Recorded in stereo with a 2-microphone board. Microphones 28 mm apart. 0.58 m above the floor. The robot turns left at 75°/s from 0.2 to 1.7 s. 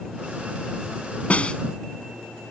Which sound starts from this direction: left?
A snare drum, at 1.3 s.